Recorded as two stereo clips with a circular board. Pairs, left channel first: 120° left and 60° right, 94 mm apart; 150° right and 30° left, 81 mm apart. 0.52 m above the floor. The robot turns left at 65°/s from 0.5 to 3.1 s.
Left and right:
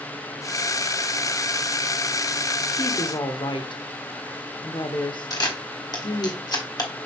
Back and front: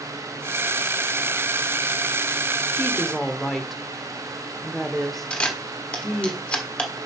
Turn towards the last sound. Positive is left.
turn(degrees=140)